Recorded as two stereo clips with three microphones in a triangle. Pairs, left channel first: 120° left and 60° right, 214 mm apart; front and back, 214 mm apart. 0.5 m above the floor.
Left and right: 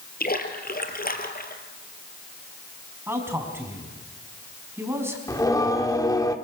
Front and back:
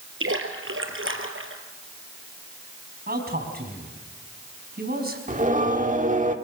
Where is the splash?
165° left, 2 m.